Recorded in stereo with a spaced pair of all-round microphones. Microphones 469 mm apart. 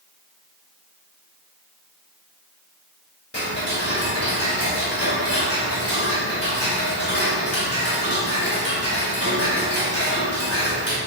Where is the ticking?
30° left (ahead or behind), 2.5 m.